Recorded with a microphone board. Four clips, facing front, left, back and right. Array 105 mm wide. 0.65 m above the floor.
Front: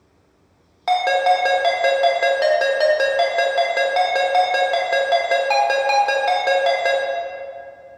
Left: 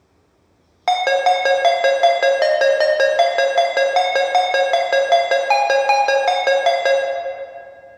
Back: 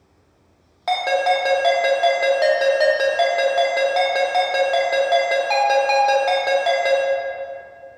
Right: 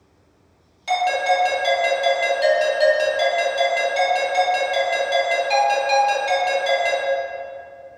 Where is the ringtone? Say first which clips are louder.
Left 4 dB, front 2 dB; 85° left, 0.5 m.